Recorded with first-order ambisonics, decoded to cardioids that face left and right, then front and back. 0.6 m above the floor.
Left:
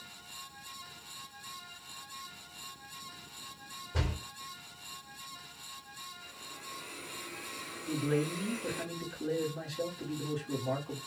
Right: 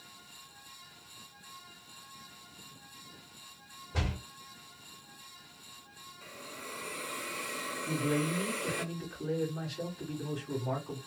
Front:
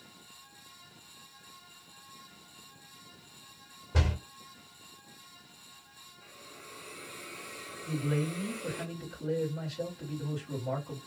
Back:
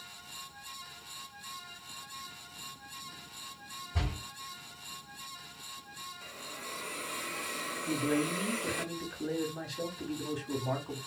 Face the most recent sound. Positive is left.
turn(degrees=-165)